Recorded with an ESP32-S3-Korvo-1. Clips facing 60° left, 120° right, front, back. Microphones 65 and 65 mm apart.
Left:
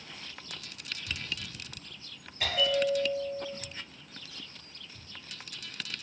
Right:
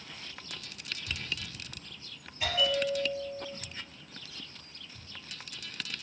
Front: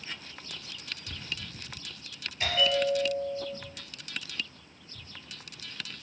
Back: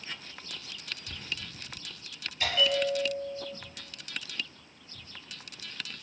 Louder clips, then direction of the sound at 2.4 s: Left 2 dB, front 1 dB; 65° left.